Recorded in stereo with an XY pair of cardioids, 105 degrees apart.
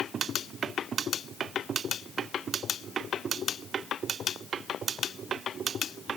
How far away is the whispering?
I don't hear whispering.